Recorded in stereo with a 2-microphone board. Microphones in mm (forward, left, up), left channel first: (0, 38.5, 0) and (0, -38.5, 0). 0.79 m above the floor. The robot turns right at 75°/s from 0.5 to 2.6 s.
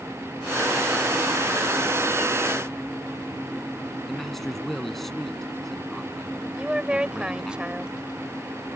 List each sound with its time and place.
4.1 s a man speaking: 5° left (ahead or behind)
6.6 s a woman speaking: 15° right (ahead or behind)